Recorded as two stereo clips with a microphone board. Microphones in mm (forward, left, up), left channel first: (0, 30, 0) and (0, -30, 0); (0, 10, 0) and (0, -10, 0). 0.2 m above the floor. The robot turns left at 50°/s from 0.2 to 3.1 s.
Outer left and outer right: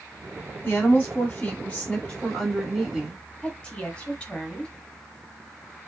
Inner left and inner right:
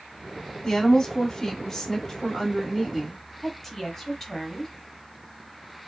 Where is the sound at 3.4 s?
15° left (ahead or behind), 1.2 m.